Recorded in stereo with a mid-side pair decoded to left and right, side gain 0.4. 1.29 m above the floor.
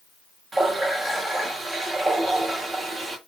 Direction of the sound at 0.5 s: 30° right.